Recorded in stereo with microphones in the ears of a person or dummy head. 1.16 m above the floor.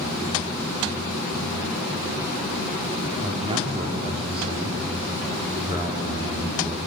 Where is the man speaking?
35° right (ahead or behind), 3.5 m.